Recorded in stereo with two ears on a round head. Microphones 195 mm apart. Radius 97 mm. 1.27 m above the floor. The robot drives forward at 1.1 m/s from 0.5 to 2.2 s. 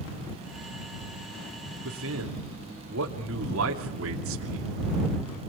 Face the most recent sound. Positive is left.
turn(degrees=-70)  # may be behind; listen again after turning